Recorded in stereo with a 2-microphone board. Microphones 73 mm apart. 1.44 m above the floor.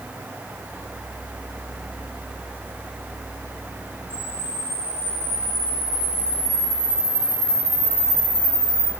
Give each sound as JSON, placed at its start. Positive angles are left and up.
{"t": 4.1, "sound": "a camera shutter", "side_deg": 15, "distance_m": 3.5}